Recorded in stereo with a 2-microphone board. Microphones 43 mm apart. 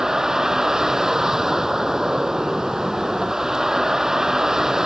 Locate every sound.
0.0 s a vehicle: 15° right (ahead or behind)